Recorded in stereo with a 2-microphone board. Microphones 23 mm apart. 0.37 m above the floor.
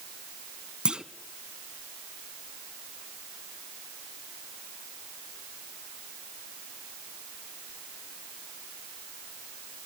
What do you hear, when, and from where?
0.8 s a clunk: 45° right (ahead or behind), 0.8 m